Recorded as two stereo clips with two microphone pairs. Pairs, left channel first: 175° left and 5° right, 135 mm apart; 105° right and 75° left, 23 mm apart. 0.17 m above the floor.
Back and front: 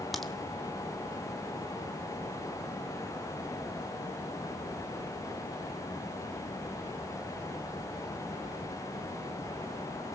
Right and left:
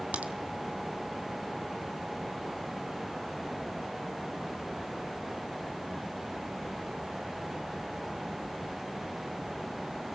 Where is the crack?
90° left, 1.3 m.